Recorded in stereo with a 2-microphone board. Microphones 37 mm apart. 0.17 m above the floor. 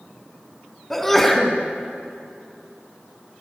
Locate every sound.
0.9 s a sneeze: 5° left (ahead or behind), 1.9 m